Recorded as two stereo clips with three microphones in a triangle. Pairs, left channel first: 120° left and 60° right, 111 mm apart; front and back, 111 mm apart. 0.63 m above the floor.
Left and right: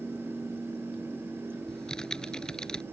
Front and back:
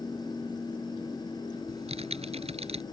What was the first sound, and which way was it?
Typing on a keyboard, 155° right.